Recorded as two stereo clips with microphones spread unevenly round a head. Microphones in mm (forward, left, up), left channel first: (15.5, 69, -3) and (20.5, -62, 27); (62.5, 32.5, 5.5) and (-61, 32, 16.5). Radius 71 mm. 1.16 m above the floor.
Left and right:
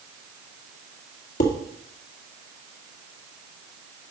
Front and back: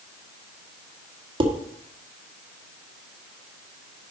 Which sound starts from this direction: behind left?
Dishes clattering, at 1.4 s.